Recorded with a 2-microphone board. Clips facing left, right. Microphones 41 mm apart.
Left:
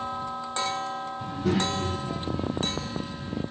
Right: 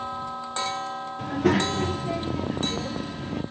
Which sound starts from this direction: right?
A child speaking, at 1.2 s.